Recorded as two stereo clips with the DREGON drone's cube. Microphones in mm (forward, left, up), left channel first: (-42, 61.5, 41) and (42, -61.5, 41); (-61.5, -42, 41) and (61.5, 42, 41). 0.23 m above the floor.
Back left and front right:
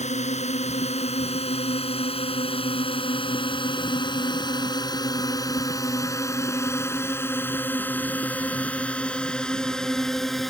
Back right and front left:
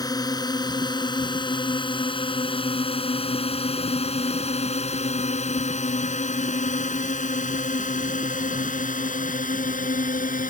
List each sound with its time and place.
0.0 s a drone: 155° left; by 10.5 s 145° right